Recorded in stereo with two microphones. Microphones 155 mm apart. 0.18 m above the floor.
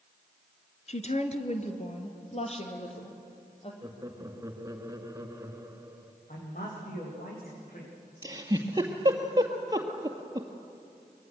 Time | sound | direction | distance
0.9 | a woman speaking | 50° left (ahead or behind) | 2 m
3.8 | laughter | 20° right (ahead or behind) | 2.5 m
6.3 | a man speaking | 60° left (ahead or behind) | 9 m
8.2 | a giggle | 25° right (ahead or behind) | 2.5 m